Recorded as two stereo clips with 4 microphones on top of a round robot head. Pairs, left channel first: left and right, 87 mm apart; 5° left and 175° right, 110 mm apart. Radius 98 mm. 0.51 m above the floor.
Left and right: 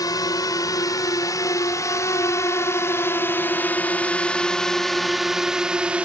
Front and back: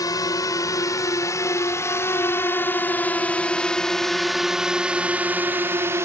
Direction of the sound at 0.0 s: 55° left.